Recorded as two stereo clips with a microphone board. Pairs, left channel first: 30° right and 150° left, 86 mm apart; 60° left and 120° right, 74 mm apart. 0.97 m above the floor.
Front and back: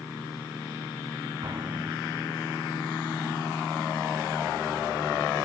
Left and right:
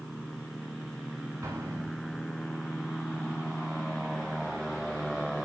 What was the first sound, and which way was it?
An explosion, 175° right.